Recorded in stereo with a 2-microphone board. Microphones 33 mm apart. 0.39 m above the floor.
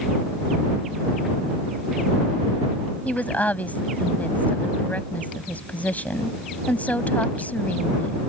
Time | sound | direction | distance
3.0 | a woman speaking | 50° left (ahead or behind) | ?